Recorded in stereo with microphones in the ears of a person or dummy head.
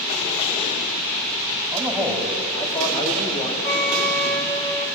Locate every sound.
1.7 s a man speaking: 5° left (ahead or behind), 3.5 m; by 3.5 s 30° left (ahead or behind), 3.5 m
3.6 s a flute: 10° left (ahead or behind), 1.4 m